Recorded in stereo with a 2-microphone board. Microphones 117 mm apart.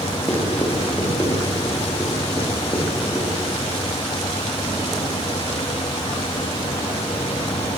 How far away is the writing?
About 8 m.